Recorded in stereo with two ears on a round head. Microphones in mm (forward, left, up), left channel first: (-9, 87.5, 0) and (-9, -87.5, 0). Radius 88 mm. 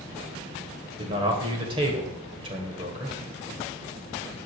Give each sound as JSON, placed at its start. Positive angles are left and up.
{"t": 1.0, "sound": "a man speaking", "side_deg": -30, "distance_m": 1.5}